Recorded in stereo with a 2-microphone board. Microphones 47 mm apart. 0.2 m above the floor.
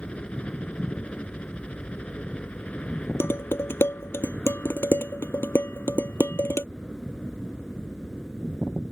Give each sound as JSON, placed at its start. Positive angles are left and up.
{"t": 0.0, "sound": "a helicopter", "side_deg": 25}
{"t": 3.2, "sound": "dishes clattering", "side_deg": 60}